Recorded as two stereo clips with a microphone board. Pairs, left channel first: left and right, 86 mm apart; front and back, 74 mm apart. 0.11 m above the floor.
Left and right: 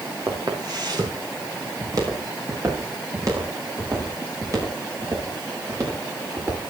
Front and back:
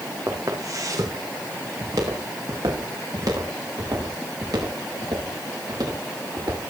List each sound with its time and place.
0.3 s footsteps: 125° right, 6 m; by 6.6 s 145° right, 14 m